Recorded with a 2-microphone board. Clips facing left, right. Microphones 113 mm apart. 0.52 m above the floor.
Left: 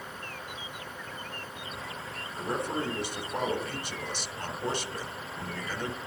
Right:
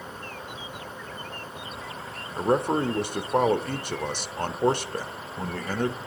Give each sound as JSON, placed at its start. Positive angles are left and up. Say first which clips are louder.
{"t": 2.4, "sound": "a man speaking", "louder": "right 9 dB", "side_deg": -55, "distance_m": 1.3}